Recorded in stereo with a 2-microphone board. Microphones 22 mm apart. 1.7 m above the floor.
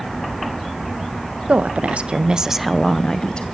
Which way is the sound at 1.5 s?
70° right (ahead or behind).